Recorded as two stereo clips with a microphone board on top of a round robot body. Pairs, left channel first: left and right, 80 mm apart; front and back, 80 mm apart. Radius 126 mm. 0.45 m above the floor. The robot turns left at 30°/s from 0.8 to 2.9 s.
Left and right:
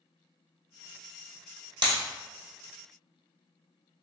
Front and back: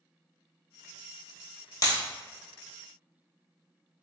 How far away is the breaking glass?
About 1.2 m.